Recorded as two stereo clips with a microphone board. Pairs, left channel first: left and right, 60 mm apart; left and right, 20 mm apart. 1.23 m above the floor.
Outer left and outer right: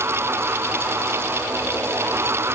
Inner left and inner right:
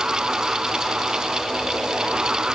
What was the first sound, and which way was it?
Only background noise.